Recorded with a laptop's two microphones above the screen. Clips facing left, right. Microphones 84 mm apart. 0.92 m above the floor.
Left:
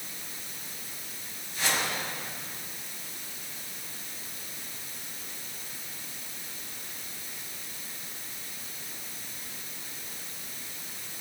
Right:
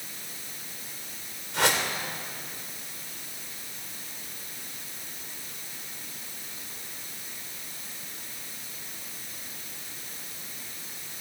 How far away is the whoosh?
About 2.5 m.